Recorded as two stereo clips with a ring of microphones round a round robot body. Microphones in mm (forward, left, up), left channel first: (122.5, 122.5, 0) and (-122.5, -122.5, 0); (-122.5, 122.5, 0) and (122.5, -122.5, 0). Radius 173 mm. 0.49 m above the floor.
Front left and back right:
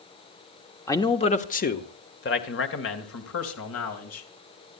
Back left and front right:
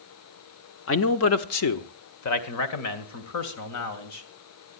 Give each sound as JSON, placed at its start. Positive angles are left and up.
{"t": 0.9, "sound": "a man speaking", "azimuth_deg": 120, "distance_m": 1.1}